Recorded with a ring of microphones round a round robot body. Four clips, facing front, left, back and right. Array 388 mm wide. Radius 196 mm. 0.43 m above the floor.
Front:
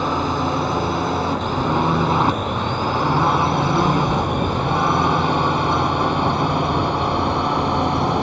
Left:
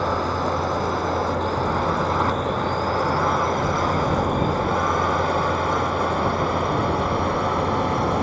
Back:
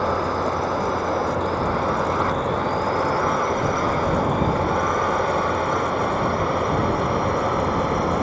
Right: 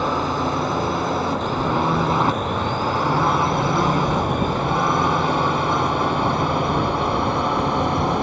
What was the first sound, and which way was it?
A drone, 30° right.